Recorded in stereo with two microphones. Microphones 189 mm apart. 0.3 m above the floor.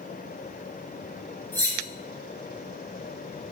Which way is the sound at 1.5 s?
10° left (ahead or behind).